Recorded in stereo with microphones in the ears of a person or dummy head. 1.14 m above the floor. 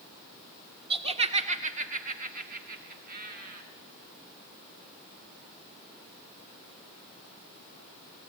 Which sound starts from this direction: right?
Laughter, at 0.9 s.